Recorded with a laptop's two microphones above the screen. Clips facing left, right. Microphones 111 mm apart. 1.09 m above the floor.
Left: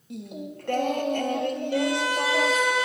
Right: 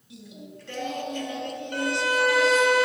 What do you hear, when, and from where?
0.1 s singing: 50° left (ahead or behind), 0.7 m
1.7 s a violin: 55° right (ahead or behind), 1.3 m